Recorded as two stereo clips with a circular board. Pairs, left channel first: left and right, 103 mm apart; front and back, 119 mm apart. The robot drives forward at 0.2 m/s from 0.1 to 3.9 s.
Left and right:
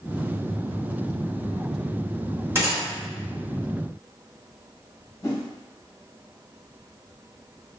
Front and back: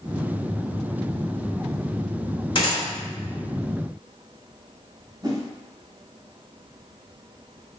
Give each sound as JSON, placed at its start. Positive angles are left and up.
{"t": 2.5, "sound": "a gunshot", "azimuth_deg": -35, "distance_m": 1.7}
{"t": 5.2, "sound": "a whoosh", "azimuth_deg": 135, "distance_m": 0.9}